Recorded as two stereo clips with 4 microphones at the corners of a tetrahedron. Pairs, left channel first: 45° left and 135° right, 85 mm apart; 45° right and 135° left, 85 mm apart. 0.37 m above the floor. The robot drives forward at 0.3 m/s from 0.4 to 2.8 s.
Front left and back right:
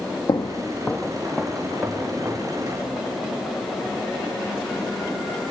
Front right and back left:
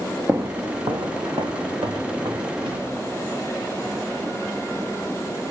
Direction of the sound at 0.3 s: 65° left.